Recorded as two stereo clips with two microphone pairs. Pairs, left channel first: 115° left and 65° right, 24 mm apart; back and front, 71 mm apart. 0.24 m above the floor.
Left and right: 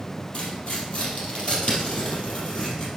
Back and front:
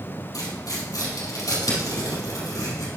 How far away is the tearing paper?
About 3 m.